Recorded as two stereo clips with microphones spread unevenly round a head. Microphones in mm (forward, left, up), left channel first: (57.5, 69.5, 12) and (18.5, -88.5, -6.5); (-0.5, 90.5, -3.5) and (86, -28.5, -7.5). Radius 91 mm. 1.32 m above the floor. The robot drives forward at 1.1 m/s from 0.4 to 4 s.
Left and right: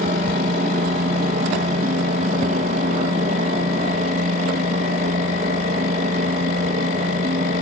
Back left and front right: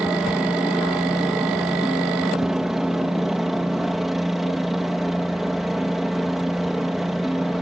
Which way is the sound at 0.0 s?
140° right.